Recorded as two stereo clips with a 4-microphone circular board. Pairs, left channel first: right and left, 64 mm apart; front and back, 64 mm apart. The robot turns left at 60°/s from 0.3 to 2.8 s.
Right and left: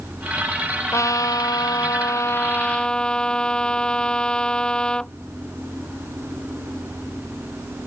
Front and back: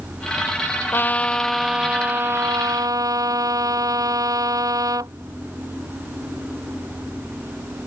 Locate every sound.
0.9 s a trumpet: 50° right; by 5.1 s 165° right